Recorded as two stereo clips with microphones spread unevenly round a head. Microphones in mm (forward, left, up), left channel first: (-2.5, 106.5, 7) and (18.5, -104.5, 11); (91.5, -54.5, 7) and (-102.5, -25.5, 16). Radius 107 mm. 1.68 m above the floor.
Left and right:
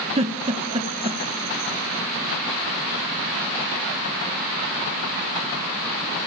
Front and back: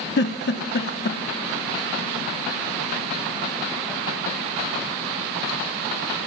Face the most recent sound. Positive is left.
turn(degrees=-30)